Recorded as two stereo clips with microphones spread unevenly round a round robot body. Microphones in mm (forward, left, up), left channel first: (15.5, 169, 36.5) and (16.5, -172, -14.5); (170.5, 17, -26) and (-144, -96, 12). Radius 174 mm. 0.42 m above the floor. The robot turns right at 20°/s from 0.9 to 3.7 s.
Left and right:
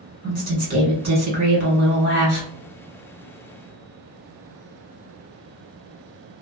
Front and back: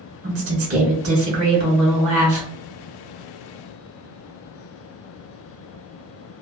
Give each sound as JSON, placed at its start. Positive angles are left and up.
{"t": 0.2, "sound": "a woman speaking", "azimuth_deg": -145, "distance_m": 1.7}